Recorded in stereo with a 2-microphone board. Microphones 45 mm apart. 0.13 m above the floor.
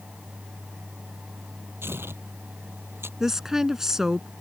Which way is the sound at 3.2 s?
10° right (ahead or behind).